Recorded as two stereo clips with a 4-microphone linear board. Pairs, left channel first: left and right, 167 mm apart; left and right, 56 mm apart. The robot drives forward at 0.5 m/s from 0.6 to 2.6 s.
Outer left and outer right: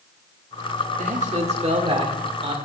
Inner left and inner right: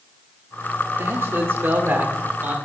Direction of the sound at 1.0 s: 45° right (ahead or behind).